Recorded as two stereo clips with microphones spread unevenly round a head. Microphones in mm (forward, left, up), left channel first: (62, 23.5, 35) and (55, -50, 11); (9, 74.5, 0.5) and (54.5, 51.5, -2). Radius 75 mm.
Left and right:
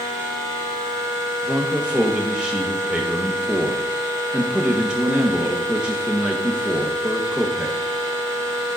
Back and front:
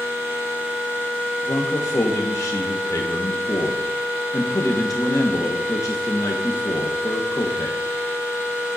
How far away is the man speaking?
About 1.2 m.